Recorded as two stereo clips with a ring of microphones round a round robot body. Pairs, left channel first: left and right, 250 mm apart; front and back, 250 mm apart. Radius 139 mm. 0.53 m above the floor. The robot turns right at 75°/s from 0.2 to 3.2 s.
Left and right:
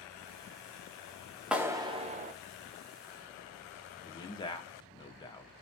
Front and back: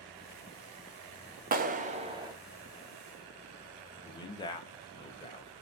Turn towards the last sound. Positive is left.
turn(degrees=45)